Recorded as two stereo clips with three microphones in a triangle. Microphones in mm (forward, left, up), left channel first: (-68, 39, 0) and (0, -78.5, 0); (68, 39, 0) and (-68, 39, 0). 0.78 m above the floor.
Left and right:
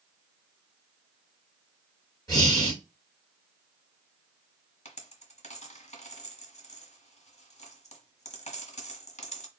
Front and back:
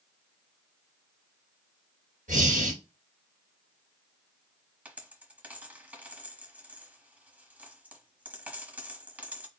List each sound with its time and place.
2.3 s breathing: 175° right, 1.9 m
4.8 s a dropped coin: 100° left, 1.0 m